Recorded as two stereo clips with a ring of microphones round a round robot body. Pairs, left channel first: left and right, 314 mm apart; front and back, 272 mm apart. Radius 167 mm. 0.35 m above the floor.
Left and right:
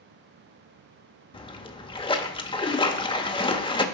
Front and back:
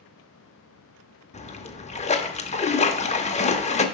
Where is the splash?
35° left, 0.8 m.